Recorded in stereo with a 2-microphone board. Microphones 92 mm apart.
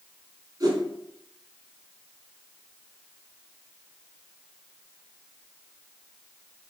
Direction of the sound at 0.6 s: 45° right (ahead or behind).